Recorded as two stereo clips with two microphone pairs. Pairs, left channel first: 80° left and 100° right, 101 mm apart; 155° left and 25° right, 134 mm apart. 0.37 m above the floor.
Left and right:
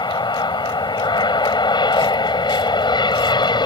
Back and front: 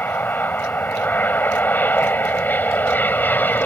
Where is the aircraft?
80° left.